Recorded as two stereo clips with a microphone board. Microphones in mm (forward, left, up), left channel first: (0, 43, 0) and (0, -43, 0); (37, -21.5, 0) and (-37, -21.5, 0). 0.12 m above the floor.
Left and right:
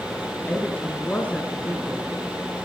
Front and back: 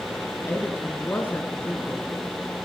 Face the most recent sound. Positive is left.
turn(degrees=30)